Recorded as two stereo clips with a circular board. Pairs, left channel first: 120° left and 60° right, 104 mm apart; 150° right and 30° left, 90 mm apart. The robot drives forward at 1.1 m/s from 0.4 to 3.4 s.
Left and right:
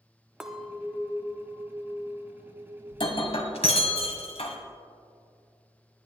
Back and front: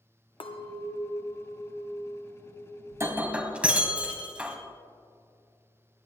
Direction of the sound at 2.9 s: 85° left.